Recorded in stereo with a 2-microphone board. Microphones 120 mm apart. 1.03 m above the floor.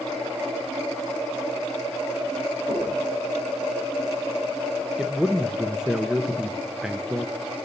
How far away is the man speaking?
About 0.7 m.